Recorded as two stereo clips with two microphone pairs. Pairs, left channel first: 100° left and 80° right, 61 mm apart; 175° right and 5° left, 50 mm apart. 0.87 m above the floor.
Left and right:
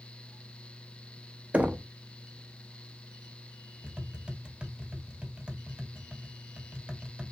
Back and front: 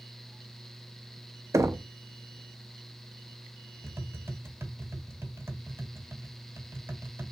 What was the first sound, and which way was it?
Knocking, 10° right.